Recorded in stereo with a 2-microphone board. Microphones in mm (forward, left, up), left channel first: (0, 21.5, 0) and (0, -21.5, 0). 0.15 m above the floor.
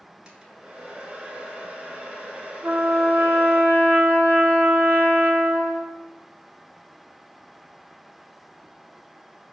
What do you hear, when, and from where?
0.2 s a hair dryer: 25° right (ahead or behind), 0.7 m
2.6 s a trumpet: 40° right (ahead or behind), 0.5 m